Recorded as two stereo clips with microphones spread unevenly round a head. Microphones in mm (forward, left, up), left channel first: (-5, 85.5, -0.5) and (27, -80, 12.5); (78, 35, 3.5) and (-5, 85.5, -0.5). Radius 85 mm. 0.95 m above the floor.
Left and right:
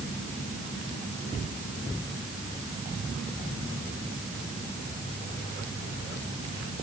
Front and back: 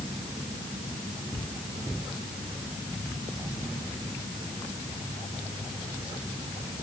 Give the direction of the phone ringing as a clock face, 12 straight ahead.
No phone ringing in this recording.